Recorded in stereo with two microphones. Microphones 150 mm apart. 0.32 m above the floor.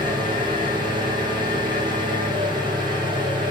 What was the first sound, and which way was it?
An engine running, 30° right (ahead or behind).